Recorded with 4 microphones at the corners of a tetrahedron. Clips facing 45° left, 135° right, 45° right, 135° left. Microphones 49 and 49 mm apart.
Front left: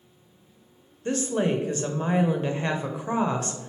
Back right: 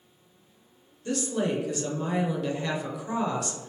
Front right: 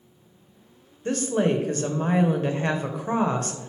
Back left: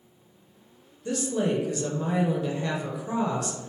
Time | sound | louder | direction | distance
1.1 | a woman speaking | front left 3 dB, front right 3 dB | 10° right | 0.7 m